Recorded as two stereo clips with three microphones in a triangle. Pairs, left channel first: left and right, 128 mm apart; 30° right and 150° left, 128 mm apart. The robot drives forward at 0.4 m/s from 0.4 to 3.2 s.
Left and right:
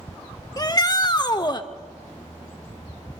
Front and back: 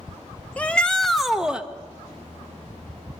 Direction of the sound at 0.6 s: 45° left.